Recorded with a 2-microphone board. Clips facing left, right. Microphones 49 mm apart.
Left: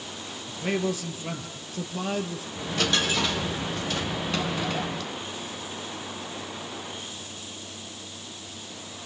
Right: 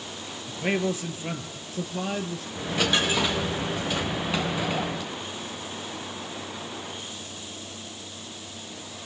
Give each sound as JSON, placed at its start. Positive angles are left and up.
{"t": 0.5, "sound": "a man speaking", "side_deg": -30, "distance_m": 2.5}
{"t": 2.5, "sound": "a dropped coin", "side_deg": -15, "distance_m": 3.0}